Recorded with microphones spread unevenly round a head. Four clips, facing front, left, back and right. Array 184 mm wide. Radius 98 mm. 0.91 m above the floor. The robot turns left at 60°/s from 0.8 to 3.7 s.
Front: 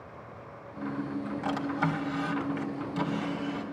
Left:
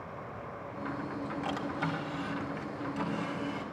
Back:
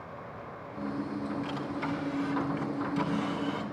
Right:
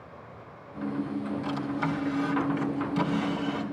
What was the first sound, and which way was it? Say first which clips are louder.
A drawer: right 3 dB, front 4 dB; 15° left.